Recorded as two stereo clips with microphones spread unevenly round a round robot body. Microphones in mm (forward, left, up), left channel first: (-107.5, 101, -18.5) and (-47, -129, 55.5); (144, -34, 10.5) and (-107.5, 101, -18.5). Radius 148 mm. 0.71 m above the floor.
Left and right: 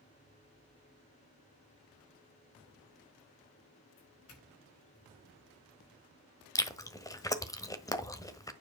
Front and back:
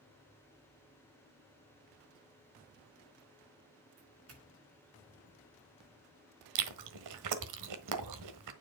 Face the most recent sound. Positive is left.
turn(degrees=-175)